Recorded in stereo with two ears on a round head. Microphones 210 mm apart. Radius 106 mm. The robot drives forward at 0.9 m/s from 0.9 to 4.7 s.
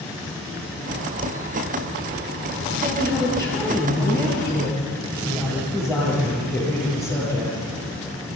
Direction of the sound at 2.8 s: 5° left (ahead or behind).